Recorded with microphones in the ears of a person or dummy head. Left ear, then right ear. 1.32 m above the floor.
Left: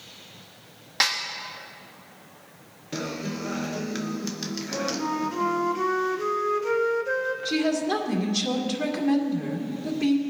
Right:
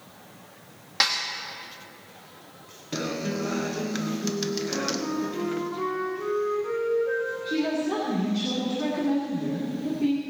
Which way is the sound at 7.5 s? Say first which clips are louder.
Left 3 dB; 70° left (ahead or behind).